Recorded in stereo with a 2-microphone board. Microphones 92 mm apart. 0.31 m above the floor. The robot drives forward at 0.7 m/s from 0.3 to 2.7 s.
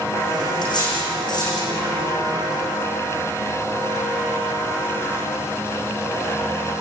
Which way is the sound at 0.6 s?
50° left (ahead or behind).